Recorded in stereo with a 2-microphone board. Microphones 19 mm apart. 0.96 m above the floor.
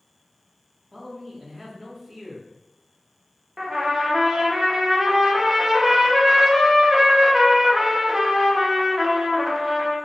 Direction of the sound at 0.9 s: 10° right (ahead or behind).